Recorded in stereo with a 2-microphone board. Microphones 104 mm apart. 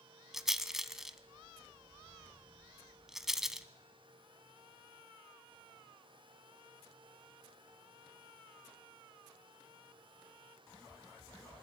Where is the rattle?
5° right (ahead or behind), 0.9 m.